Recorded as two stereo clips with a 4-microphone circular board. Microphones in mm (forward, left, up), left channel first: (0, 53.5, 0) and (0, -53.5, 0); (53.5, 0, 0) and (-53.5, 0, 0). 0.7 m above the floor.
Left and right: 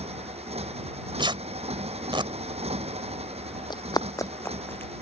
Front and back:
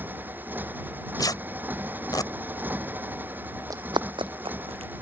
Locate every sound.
0.0 s a motorcycle: 105° right
1.2 s tearing paper: 50° right
3.7 s running footsteps: 130° left; by 4.9 s 160° left